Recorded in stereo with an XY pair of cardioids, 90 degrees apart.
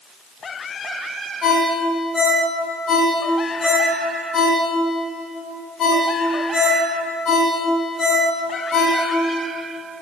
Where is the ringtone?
65° left, 3.5 m.